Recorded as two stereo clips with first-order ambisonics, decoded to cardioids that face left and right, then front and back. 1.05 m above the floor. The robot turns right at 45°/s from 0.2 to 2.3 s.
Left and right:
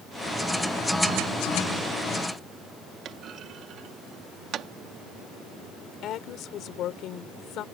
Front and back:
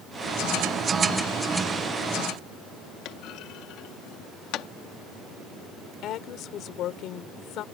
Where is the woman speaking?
45° left.